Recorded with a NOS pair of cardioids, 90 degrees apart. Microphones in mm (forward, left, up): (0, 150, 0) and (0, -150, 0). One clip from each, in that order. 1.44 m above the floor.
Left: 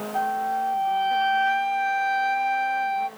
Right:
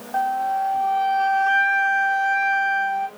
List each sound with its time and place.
0.1 s a flute: 40° right, 1.3 m